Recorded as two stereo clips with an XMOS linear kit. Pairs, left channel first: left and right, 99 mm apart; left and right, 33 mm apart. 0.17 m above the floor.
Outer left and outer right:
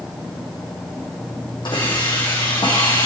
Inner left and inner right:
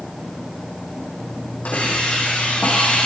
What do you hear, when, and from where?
1.6 s a hiss: 50° left (ahead or behind), 6.5 m